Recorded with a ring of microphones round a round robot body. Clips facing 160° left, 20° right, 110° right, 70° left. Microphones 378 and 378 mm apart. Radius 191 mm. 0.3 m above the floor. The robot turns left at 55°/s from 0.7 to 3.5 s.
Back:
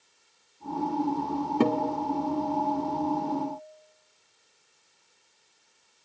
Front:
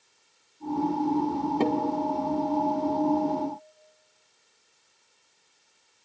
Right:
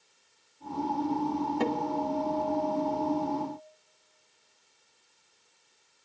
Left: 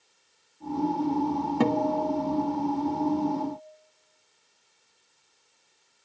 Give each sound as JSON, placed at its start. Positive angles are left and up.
{"t": 1.6, "sound": "a guitar", "azimuth_deg": 85, "distance_m": 1.3}